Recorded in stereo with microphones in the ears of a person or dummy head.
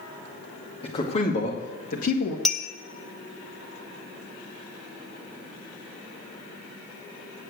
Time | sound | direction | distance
0.8 | a man speaking | 30° left (ahead or behind) | 2 m
2.5 | a clink | 5° left (ahead or behind) | 0.6 m